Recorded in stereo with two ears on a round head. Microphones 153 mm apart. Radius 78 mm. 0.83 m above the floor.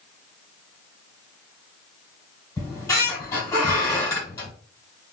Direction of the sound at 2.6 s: 20° left (ahead or behind).